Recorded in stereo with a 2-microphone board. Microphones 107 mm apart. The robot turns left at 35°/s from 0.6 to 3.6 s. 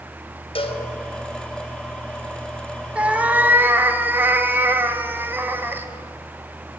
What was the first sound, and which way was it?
A cowbell, 60° left (ahead or behind).